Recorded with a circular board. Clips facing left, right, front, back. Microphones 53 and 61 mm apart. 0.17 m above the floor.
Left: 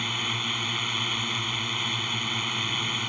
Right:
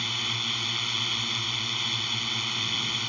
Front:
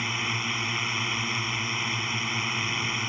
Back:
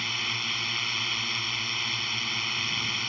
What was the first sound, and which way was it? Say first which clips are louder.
A drone: left 2 dB, front 3 dB; 40° left.